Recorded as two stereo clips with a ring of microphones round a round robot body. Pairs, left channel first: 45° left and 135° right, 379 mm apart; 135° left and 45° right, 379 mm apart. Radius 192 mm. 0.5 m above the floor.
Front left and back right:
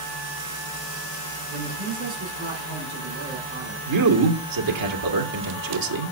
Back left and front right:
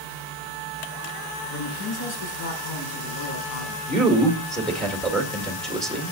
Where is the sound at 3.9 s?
135° right, 1.9 m.